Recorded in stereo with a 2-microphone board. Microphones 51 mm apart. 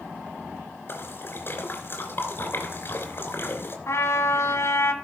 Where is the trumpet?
60° left (ahead or behind), 1.4 m.